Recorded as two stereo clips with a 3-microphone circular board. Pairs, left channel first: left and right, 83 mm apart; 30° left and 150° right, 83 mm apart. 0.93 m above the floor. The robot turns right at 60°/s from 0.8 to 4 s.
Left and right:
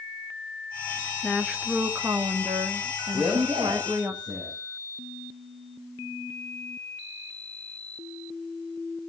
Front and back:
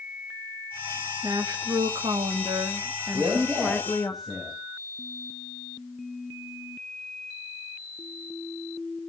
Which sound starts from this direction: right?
A man speaking, at 3.1 s.